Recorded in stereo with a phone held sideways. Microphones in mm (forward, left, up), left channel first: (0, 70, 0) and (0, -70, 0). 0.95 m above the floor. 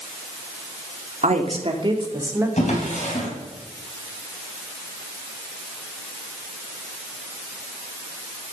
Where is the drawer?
55° left (ahead or behind), 3.5 m.